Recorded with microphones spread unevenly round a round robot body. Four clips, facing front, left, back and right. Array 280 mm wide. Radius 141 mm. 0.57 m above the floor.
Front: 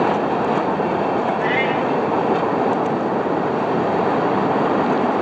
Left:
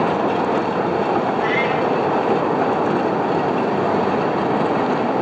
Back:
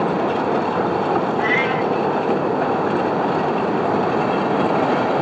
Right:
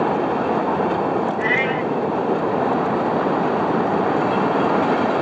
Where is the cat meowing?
140° left, 3.5 m.